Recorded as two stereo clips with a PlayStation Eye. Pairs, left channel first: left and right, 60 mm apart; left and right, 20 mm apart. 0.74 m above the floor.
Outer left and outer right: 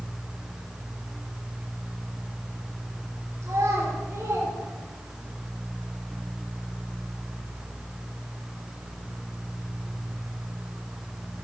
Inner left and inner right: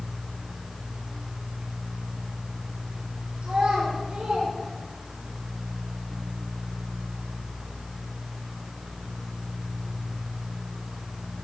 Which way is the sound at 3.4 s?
50° right (ahead or behind).